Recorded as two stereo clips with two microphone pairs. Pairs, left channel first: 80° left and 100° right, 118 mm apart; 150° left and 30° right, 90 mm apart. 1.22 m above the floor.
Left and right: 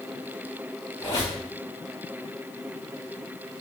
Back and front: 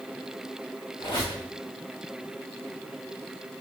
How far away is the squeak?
About 1.9 m.